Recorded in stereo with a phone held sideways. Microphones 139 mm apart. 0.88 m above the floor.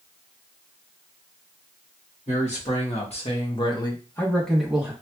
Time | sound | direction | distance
2.3 | a man speaking | 55° left (ahead or behind) | 1.5 m